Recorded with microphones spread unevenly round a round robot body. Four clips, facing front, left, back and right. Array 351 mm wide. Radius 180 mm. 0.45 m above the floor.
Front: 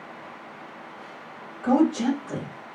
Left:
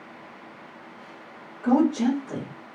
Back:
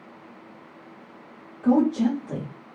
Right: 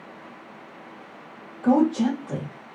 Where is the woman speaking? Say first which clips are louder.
Right 1 dB, back 1 dB; 160° right, 1.5 m.